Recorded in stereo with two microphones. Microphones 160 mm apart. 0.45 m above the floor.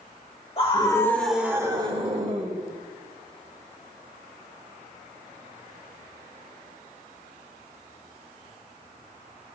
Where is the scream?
35° left (ahead or behind), 1.5 m; by 2.6 s 55° right (ahead or behind), 2 m.